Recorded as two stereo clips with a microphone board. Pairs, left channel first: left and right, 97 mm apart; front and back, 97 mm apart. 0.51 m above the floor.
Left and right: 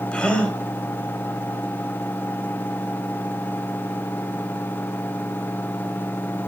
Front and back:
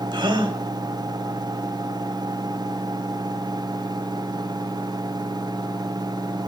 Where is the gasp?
165° left, 1.7 m.